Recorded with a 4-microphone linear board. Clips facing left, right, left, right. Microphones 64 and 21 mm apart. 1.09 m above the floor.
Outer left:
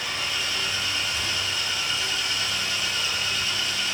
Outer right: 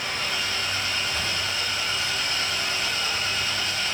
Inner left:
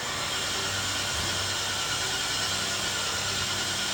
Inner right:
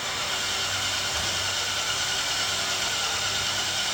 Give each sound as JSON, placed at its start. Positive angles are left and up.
{"t": 0.0, "sound": "an engine running", "side_deg": -45, "distance_m": 6.5}